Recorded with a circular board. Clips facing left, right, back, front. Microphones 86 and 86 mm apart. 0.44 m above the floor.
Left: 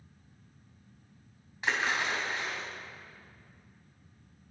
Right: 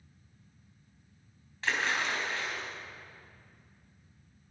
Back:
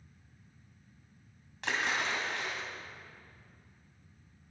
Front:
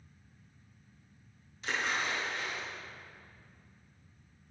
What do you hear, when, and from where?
1.6 s a splash: 165° left, 3 m